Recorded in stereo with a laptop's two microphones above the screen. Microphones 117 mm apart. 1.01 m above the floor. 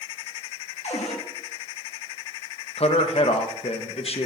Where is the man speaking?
60° left (ahead or behind), 0.8 m.